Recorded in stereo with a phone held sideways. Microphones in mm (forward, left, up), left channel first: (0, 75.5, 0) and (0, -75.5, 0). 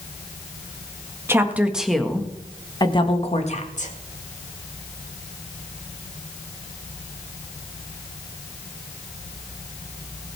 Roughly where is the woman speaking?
Centre.